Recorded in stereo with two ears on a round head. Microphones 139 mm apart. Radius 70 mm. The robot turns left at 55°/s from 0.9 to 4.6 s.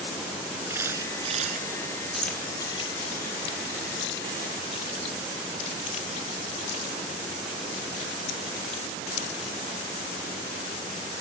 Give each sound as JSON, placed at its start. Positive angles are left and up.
{"t": 0.7, "sound": "a camera shutter", "azimuth_deg": -15}
{"t": 2.1, "sound": "keys jangling", "side_deg": 0}